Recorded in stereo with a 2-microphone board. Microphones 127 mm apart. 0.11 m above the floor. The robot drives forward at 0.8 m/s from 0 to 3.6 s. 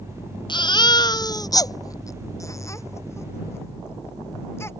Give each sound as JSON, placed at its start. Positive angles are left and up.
{"t": 0.5, "sound": "a baby crying", "side_deg": 40}